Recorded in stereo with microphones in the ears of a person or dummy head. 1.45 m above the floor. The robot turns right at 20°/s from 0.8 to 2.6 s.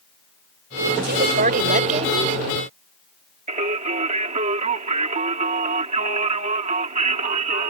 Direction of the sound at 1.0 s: 55° right (ahead or behind).